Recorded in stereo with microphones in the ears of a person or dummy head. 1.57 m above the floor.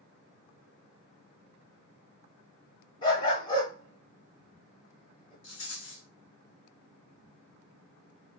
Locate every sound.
3.0 s a dog barking: 20° left (ahead or behind), 2.5 m
5.4 s a rattle: 60° left (ahead or behind), 2 m